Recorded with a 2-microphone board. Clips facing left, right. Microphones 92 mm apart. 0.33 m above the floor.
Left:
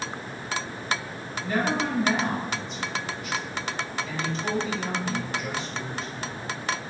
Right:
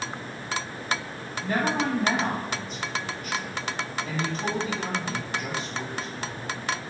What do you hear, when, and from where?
1.4 s a woman speaking: 50° right (ahead or behind), 1.9 m